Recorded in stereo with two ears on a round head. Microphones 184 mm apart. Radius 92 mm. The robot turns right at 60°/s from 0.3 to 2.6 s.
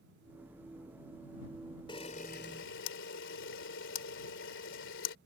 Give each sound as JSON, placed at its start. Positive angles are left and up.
{"t": 1.9, "sound": "a camera shutter", "side_deg": 25}